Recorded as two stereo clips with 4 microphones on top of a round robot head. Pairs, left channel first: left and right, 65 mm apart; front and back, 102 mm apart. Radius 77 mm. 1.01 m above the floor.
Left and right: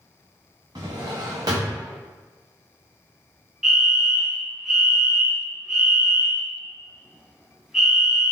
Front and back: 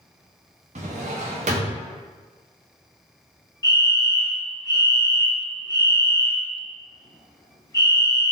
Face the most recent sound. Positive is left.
turn(degrees=-15)